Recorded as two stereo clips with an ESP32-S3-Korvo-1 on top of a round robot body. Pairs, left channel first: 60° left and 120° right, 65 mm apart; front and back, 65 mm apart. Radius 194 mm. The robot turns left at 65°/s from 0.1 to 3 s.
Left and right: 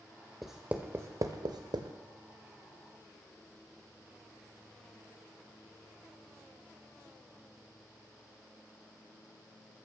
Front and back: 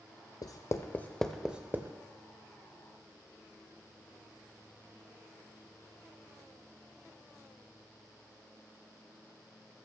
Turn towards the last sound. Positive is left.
turn(degrees=160)